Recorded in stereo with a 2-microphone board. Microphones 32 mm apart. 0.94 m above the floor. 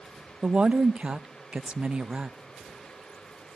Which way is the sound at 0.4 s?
35° right (ahead or behind).